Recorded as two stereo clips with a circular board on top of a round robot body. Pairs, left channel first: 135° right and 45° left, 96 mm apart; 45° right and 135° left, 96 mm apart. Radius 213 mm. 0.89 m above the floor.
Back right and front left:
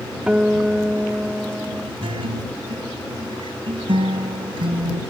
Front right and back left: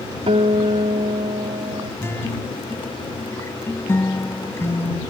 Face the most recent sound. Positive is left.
turn(degrees=20)